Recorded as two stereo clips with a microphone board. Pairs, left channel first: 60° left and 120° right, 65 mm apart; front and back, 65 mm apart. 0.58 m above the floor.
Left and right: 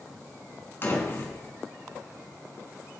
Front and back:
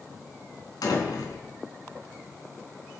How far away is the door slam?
About 3.5 m.